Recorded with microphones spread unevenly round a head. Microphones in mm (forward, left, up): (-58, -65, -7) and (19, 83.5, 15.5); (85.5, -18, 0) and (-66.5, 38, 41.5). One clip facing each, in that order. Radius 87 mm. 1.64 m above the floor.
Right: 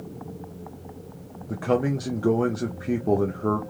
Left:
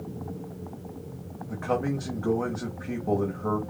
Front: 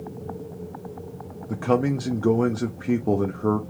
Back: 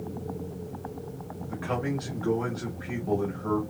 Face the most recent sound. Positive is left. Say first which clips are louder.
# right 4 dB, front 9 dB
turn(degrees=-60)